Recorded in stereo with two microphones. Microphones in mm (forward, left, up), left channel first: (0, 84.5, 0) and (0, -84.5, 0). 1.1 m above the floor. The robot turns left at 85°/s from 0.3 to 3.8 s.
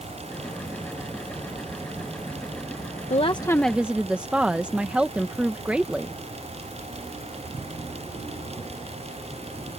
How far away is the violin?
No violin in this recording.